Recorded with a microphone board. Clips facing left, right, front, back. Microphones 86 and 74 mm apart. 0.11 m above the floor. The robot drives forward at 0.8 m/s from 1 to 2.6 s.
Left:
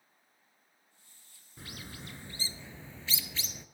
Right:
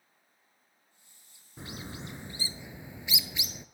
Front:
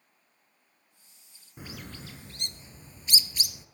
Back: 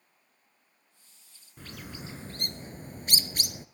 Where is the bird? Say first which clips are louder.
Right 5 dB, even; 50° right, 0.6 m; by 3.6 s 160° right, 0.8 m.